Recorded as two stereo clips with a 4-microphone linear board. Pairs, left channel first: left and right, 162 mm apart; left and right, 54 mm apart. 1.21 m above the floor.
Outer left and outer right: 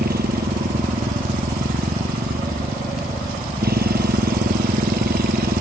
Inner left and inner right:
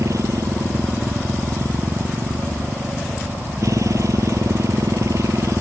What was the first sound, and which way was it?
A motorcycle, 75° right (ahead or behind).